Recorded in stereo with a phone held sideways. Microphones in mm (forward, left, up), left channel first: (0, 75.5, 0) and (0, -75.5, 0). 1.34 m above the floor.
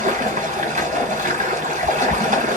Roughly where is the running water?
Right.